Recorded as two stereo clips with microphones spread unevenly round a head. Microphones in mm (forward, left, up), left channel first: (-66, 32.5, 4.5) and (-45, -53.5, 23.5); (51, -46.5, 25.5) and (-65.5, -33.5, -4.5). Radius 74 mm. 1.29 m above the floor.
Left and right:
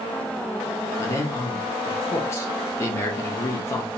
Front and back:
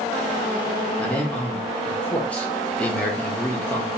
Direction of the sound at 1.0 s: 85° left.